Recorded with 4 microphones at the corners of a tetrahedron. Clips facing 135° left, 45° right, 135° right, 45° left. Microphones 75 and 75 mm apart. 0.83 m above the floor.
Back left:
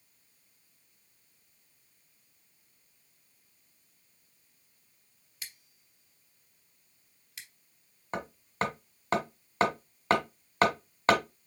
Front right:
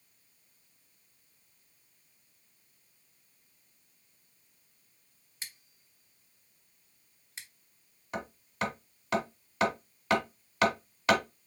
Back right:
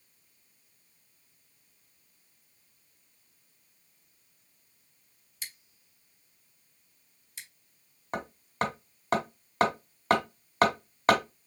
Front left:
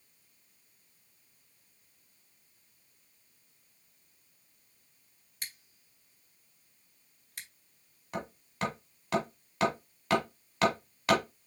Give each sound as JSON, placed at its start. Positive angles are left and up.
{"t": 5.4, "sound": "scissors", "azimuth_deg": 10, "distance_m": 1.4}
{"t": 8.1, "sound": "hammering", "azimuth_deg": -175, "distance_m": 1.6}